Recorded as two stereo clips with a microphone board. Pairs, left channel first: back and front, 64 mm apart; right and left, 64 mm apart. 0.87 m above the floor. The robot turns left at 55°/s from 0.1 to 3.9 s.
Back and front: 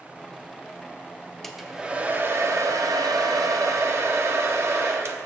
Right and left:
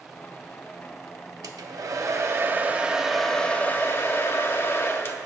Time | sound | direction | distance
1.4 | a hair dryer | 95° left | 0.7 m